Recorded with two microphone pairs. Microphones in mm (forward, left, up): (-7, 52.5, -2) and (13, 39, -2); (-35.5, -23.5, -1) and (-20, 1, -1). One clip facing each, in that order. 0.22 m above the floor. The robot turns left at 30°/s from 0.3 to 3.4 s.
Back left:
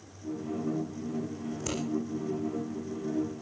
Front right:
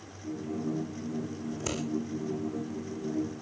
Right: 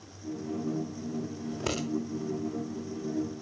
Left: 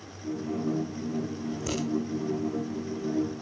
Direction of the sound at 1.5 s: 120° right.